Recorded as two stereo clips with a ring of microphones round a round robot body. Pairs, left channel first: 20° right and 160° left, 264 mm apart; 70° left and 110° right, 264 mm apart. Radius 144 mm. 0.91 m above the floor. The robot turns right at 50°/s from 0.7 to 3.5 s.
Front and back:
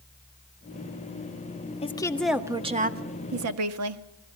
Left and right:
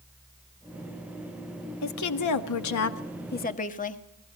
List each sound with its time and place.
1.8 s a woman speaking: 45° left, 1.4 m; by 4.0 s 130° left, 1.4 m